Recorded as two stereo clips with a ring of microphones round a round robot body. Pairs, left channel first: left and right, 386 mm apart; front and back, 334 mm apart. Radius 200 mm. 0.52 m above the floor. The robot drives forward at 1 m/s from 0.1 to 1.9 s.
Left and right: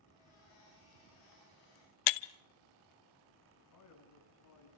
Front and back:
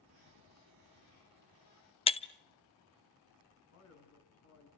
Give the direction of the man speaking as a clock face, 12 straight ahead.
11 o'clock.